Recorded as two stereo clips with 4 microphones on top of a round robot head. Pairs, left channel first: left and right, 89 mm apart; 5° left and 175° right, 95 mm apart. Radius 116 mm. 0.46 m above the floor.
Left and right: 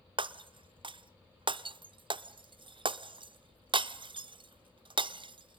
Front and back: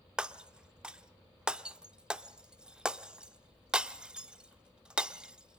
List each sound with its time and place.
0.2 s breaking glass: 100° right, 0.8 m